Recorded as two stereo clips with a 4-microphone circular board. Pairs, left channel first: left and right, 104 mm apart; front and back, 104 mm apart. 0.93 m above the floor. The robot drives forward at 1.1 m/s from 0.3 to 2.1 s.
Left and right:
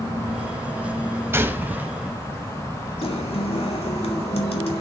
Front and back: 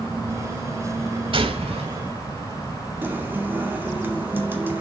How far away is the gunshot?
About 1.2 m.